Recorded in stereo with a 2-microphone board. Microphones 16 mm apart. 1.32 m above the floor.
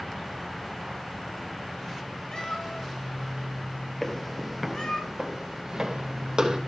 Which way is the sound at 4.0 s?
20° left (ahead or behind).